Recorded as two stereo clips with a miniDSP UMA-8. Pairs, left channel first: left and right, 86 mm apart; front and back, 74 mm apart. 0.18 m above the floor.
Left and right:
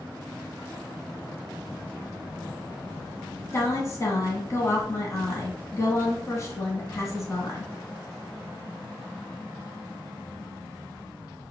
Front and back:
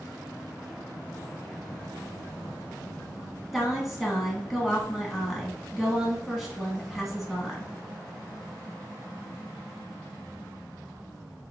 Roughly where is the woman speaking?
Left.